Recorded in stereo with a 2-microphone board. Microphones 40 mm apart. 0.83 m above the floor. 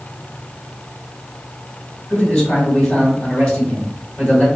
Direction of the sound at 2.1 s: 30° left (ahead or behind).